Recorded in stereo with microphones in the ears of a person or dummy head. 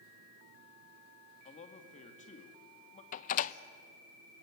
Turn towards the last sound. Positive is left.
turn(degrees=45)  # may be behind; listen again after turning